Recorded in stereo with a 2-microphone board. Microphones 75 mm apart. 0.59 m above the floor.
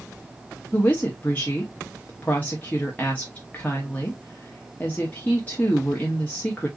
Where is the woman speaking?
20° left (ahead or behind), 0.8 m.